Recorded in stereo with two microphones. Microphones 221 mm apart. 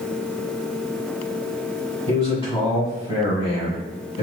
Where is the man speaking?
25° left (ahead or behind), 1.4 m.